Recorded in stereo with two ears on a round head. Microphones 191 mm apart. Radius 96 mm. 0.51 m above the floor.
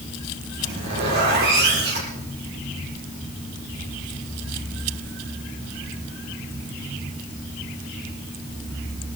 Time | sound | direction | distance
0.6 | a zipper | 50° right (ahead or behind) | 6 m